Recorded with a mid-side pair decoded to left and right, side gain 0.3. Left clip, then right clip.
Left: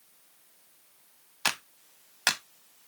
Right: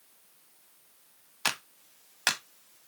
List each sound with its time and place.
1.4 s a clap: 10° left, 1.3 m